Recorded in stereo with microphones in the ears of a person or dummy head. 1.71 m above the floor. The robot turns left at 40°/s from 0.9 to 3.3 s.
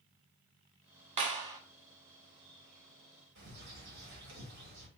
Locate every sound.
1.2 s a clap: 35° right (ahead or behind), 0.8 m; by 1.6 s 20° right (ahead or behind), 0.8 m
3.4 s a bird: 50° right (ahead or behind), 1.6 m